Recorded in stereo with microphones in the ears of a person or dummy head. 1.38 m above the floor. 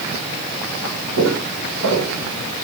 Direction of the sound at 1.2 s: 70° right (ahead or behind).